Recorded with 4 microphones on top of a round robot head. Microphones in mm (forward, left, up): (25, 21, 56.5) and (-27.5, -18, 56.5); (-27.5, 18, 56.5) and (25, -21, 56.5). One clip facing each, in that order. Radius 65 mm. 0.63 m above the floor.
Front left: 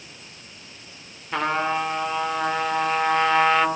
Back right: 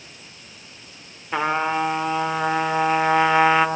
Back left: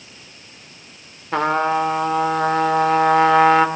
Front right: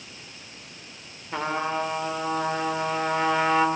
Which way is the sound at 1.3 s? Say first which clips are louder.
Back right 2 dB, back left 9 dB; 140° left.